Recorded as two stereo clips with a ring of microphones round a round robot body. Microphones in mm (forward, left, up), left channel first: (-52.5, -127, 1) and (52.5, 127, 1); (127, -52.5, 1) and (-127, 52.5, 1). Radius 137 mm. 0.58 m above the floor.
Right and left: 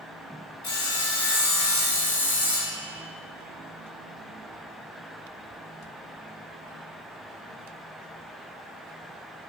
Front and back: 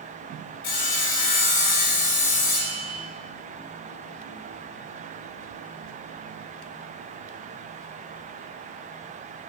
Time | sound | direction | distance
0.6 | sawing | 40° right | 1.0 m